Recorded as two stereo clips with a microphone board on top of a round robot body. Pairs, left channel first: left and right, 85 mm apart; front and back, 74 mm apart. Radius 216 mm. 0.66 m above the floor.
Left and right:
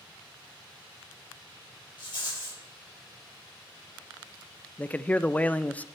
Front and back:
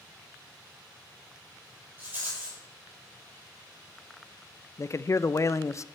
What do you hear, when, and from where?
2.0 s a rattle: 115° left, 6.5 m
4.8 s a man speaking: 25° left, 0.6 m